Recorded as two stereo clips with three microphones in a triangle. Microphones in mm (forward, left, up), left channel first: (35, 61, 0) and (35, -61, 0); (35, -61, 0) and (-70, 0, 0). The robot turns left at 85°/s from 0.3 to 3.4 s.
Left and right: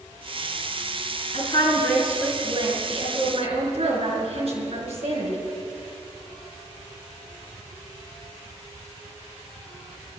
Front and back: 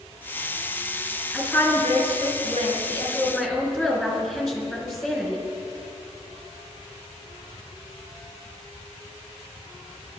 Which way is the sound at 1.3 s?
65° left.